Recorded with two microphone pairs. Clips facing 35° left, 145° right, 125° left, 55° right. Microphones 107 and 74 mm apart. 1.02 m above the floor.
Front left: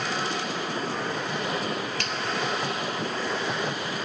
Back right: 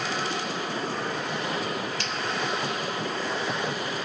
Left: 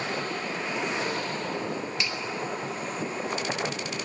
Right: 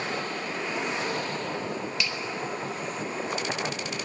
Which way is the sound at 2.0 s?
65° left.